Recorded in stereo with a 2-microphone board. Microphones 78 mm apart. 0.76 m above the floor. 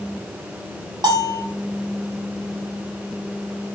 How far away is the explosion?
I don't hear an explosion.